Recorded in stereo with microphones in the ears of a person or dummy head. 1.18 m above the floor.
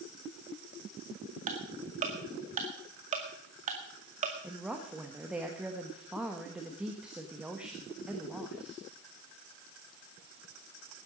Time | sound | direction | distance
1.5 | ticking | 40° right (ahead or behind) | 2 m
4.4 | a woman speaking | 10° right (ahead or behind) | 1.4 m